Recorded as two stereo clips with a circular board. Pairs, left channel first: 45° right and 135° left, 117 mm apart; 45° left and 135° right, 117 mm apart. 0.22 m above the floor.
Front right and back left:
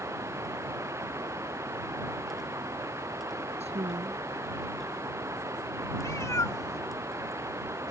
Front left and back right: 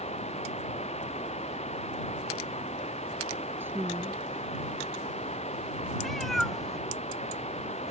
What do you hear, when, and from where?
0.0 s running water: 70° left
3.6 s a woman speaking: 155° left
6.0 s a cat meowing: 40° right